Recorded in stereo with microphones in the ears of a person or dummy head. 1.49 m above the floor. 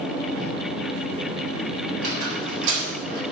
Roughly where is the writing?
Centre.